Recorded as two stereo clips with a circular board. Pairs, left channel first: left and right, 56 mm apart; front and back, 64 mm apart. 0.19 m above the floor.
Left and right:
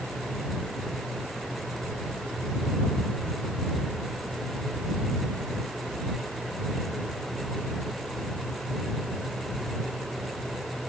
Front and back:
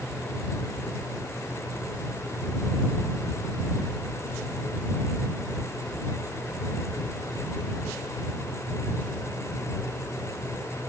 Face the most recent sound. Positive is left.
No sound to turn to.